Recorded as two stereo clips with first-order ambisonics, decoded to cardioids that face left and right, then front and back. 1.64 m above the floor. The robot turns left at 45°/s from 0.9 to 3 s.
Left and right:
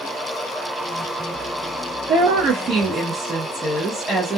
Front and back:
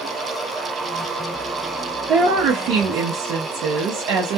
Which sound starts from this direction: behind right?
A woman speaking, at 2.1 s.